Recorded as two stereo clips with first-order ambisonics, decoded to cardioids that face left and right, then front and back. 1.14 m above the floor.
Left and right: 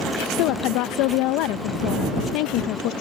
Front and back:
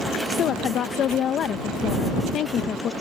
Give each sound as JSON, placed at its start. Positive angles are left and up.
{"t": 0.4, "sound": "a woman speaking", "azimuth_deg": 55}